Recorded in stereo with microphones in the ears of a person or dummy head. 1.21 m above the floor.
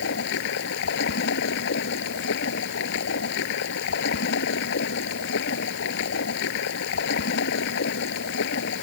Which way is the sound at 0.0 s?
70° left (ahead or behind).